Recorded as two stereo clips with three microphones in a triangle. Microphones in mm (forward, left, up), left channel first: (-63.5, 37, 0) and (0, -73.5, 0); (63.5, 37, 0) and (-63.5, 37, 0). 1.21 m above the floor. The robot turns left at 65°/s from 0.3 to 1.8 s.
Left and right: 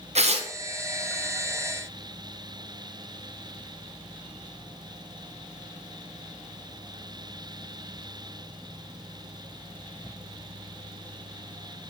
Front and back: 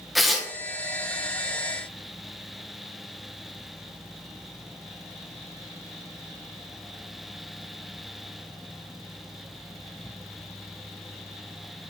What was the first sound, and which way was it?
Tearing paper, 90° right.